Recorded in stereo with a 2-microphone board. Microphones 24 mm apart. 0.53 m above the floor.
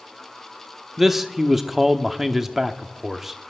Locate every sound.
1.0 s a man speaking: 10° right (ahead or behind), 0.9 m